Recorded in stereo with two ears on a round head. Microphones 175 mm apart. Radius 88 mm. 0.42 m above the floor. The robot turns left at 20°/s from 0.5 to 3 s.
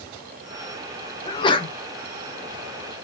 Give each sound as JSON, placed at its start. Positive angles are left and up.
{"t": 1.2, "sound": "a sneeze", "side_deg": 25, "distance_m": 0.9}